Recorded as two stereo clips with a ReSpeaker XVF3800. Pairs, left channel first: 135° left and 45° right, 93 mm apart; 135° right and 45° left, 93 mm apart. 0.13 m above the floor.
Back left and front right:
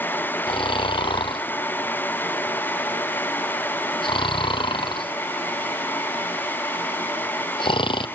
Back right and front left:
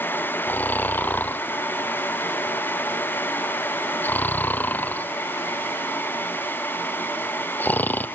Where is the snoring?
155° left, 0.8 m.